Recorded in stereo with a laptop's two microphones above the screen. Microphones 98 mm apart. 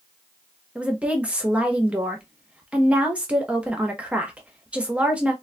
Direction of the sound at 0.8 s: 15° right (ahead or behind).